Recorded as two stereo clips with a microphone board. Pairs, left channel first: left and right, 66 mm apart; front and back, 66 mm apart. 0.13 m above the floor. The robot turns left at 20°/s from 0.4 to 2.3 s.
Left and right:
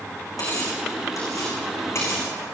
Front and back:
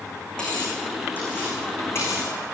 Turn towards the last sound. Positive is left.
turn(degrees=40)